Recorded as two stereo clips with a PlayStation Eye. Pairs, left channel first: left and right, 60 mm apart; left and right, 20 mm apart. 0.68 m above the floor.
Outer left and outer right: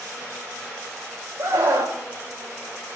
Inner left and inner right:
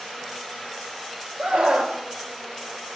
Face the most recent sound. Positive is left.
turn(degrees=-70)  # may be behind; listen again after turning